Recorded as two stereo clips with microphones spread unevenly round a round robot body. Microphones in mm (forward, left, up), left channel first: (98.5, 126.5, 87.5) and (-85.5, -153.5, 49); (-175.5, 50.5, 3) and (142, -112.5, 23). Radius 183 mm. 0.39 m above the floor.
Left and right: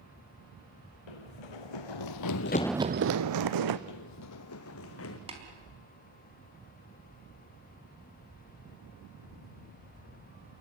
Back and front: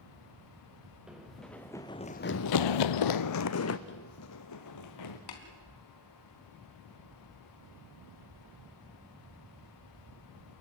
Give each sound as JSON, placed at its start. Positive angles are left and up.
{"t": 1.1, "sound": "running footsteps", "azimuth_deg": 60, "distance_m": 2.5}
{"t": 3.9, "sound": "running footsteps", "azimuth_deg": 90, "distance_m": 0.9}
{"t": 5.3, "sound": "tapping", "azimuth_deg": 165, "distance_m": 4.0}